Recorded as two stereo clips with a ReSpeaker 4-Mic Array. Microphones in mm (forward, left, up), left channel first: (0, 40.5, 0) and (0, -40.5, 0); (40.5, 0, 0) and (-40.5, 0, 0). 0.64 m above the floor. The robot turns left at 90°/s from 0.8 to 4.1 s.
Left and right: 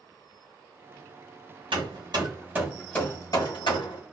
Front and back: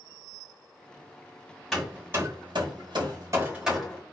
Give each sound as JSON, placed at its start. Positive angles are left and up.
{"t": 1.7, "sound": "hammering", "azimuth_deg": -85, "distance_m": 2.0}